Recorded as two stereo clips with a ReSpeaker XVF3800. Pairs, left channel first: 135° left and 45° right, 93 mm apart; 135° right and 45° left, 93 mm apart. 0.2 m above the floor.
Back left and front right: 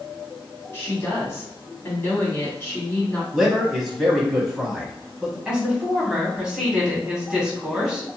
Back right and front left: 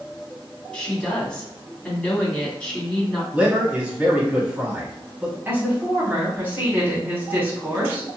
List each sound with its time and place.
0.7 s a woman speaking: 165° left, 1.5 m
3.3 s a man speaking: 40° left, 1.0 m
5.5 s a woman speaking: 25° left, 1.3 m